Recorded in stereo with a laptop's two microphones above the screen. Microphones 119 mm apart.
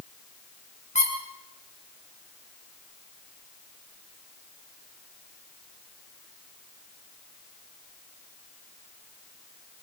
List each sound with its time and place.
0.9 s a squeak: 85° left, 4.5 m